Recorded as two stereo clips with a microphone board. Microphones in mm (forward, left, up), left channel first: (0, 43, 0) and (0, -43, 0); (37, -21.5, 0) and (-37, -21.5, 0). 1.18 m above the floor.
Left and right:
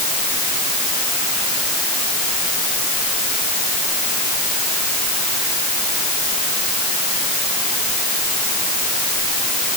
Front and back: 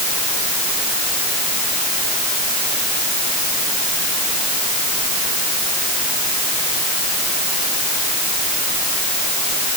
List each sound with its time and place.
Only background noise.